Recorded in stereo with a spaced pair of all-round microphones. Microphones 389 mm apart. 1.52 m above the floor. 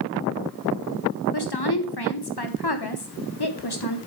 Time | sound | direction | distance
1.3 | a woman speaking | 75° left (ahead or behind) | 1.3 m